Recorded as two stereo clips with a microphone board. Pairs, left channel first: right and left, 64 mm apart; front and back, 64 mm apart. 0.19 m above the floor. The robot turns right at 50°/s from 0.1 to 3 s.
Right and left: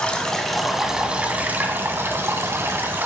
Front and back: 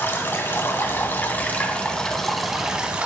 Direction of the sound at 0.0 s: 25° right.